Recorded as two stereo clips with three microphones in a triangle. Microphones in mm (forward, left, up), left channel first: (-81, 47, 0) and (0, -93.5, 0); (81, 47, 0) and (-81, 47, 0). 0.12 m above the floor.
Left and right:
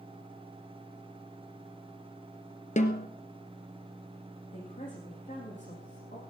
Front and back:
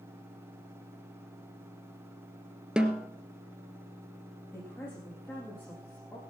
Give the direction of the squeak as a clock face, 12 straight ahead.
No squeak in this recording.